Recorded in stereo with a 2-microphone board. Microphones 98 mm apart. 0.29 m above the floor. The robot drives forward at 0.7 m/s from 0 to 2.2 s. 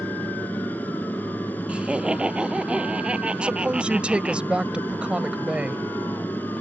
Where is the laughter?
10° right (ahead or behind).